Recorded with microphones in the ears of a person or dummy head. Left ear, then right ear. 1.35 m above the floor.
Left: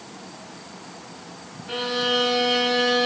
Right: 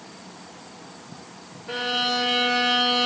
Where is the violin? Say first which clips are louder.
Left 1 dB; 30° right (ahead or behind), 1.2 m.